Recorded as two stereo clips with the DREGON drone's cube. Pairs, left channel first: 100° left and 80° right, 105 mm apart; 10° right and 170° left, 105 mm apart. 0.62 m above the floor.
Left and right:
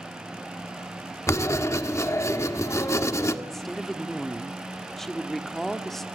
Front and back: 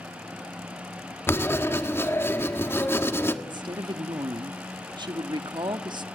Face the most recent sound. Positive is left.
turn(degrees=-175)